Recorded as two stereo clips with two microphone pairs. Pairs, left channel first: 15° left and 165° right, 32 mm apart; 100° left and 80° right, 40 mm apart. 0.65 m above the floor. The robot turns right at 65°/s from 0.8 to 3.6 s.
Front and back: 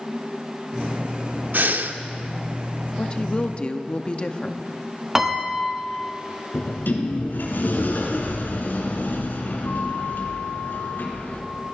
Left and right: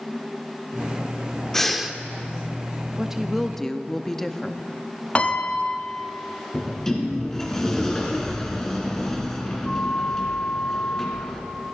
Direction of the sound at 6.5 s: 20° left.